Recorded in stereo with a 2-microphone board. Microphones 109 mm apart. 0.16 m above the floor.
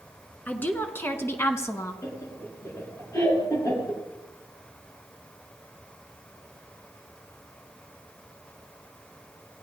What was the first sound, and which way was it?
A woman speaking, 15° left (ahead or behind).